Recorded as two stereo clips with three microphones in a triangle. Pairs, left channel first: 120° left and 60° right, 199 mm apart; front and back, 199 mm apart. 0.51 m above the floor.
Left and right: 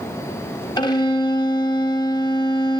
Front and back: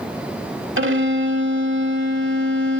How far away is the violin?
About 1.0 m.